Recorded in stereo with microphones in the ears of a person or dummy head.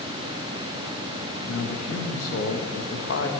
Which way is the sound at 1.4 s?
70° left (ahead or behind).